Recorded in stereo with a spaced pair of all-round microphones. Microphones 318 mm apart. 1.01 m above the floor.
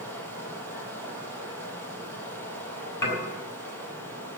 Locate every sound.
0.0 s running water: 5° left (ahead or behind), 6.5 m
3.0 s dishes clattering: 85° left, 5 m